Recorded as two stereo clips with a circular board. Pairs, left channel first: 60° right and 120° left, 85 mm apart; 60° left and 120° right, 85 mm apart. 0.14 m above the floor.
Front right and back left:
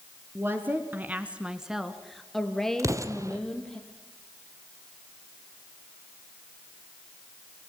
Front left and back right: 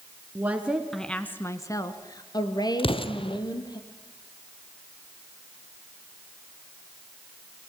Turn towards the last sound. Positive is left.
turn(degrees=70)